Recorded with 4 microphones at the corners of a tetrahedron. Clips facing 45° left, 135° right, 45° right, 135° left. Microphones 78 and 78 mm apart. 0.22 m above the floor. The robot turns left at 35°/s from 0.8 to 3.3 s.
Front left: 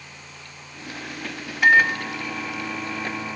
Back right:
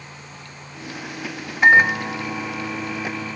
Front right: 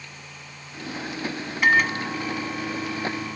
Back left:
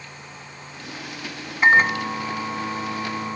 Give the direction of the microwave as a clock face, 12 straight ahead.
6 o'clock.